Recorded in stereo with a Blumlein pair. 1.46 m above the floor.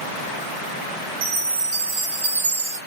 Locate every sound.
1.2 s a chime: 55° right, 0.9 m